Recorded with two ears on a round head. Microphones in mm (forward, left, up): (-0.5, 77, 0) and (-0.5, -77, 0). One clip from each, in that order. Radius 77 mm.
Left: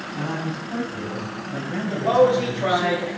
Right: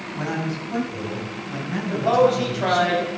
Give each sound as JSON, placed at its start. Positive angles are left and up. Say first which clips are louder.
{"t": 0.1, "sound": "a man speaking", "louder": "right 2 dB", "side_deg": -75, "distance_m": 4.5}
{"t": 1.9, "sound": "a man speaking", "louder": "left 1 dB", "side_deg": -35, "distance_m": 4.5}